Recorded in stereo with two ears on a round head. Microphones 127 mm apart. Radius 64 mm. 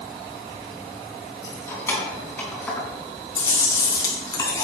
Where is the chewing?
25° left (ahead or behind), 4 m.